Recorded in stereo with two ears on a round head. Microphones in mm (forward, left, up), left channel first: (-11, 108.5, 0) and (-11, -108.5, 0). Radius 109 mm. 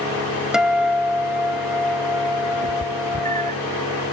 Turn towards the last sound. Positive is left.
turn(degrees=-30)  # may be behind; listen again after turning